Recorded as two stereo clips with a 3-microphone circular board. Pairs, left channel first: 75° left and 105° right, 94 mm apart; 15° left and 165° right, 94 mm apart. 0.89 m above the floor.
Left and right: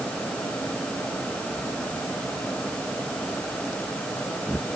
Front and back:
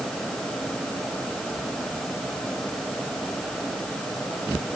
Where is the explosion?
I don't hear an explosion.